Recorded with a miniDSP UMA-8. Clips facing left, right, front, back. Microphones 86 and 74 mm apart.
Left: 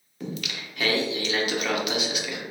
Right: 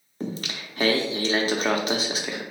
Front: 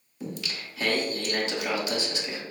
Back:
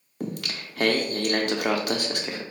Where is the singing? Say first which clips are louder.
Right 2 dB, back 3 dB; 145° right, 0.5 m.